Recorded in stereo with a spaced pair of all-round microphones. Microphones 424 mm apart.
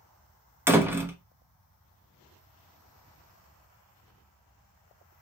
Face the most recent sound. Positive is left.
turn(degrees=-5)  # may be behind; listen again after turning